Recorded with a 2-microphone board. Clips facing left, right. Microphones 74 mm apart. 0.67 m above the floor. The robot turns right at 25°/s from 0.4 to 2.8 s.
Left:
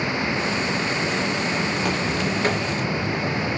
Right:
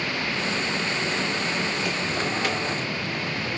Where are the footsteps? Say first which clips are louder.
Left 3 dB; 55° left (ahead or behind), 7 m; by 3.6 s 30° left (ahead or behind), 6 m.